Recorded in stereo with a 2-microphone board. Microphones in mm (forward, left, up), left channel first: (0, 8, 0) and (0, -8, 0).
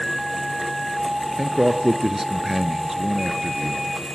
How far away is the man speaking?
About 1.5 m.